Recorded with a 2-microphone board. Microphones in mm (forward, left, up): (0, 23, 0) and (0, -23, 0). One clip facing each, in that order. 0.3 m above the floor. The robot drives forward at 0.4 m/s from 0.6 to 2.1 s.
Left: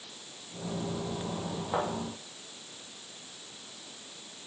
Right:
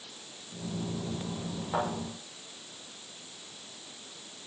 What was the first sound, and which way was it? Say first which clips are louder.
A thud: even; 15° left (ahead or behind).